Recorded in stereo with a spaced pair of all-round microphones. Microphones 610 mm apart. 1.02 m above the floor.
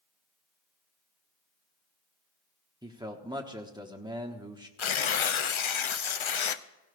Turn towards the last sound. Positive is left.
turn(degrees=55)  # may be behind; listen again after turning